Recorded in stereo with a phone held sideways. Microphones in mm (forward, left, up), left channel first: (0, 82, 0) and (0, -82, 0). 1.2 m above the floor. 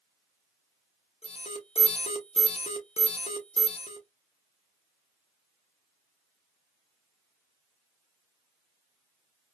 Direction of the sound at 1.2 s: 40° left (ahead or behind).